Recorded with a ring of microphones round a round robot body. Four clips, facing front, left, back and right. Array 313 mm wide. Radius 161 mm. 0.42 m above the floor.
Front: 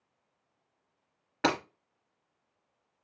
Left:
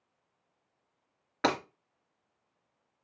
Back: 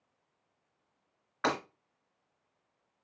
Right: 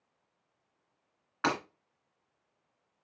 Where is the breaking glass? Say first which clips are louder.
Left 2 dB, front 3 dB; 40° left, 2.5 m.